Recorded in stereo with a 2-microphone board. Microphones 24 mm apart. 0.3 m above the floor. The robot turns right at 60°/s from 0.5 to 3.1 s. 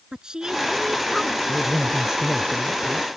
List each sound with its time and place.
0.1 s a woman speaking: 30° right; by 1.4 s 25° left
1.5 s a man speaking: 175° left; by 3.1 s 95° right